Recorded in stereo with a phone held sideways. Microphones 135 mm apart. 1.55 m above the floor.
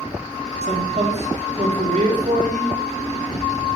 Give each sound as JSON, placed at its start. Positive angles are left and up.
{"t": 0.6, "sound": "a man speaking", "side_deg": -55, "distance_m": 4.5}